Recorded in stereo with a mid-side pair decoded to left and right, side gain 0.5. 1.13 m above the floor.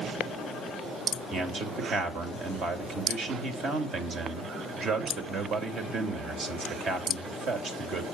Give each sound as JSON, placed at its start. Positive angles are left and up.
{"t": 1.3, "sound": "a man speaking", "azimuth_deg": -60, "distance_m": 2.5}